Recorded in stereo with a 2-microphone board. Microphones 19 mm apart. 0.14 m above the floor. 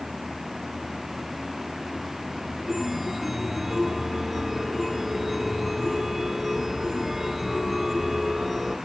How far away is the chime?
About 1.6 m.